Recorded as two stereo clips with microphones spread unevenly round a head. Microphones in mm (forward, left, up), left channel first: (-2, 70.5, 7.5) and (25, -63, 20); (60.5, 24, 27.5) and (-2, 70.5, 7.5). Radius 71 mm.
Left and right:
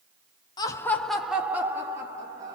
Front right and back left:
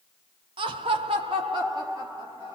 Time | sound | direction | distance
0.6 | laughter | 160° left | 0.5 m